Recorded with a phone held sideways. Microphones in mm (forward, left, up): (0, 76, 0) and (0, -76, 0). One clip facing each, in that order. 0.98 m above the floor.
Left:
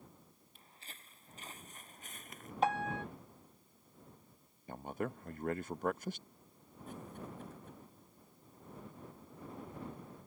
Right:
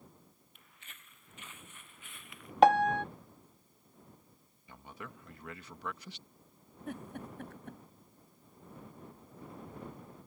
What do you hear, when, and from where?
0.6 s footsteps: 30° left (ahead or behind); by 2.5 s 45° left (ahead or behind)
2.6 s a piano: 75° right (ahead or behind)
4.7 s a man speaking: 50° left (ahead or behind)
6.9 s a giggle: 70° right (ahead or behind)